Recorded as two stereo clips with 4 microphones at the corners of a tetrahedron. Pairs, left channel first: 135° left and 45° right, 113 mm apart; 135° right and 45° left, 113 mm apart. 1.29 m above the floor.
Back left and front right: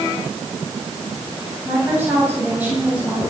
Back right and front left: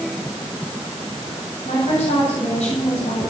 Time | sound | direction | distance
1.6 | a woman speaking | 115° right | 9.5 m